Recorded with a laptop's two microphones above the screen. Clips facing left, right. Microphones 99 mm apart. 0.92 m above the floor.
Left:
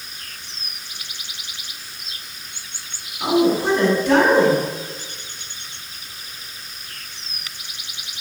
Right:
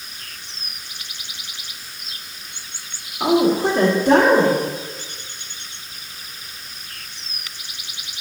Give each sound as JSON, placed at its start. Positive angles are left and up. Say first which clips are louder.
{"t": 3.2, "sound": "a woman speaking", "louder": "right 1 dB", "side_deg": -45, "distance_m": 1.5}